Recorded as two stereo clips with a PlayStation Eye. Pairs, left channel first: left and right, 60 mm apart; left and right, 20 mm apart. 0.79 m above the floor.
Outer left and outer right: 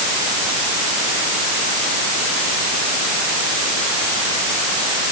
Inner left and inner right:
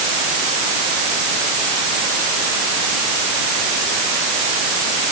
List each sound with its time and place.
Only background noise.